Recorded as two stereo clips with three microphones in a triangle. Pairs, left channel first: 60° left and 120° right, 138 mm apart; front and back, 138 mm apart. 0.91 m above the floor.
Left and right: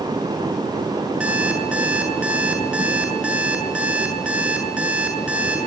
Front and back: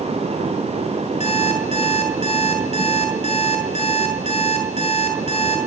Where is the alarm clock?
40° right, 7 m.